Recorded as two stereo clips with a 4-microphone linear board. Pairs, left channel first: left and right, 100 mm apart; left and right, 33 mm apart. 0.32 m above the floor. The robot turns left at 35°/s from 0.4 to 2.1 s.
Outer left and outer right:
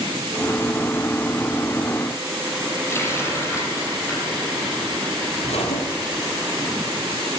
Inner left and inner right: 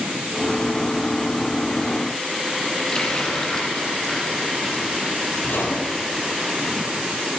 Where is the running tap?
25° left (ahead or behind), 7.5 m.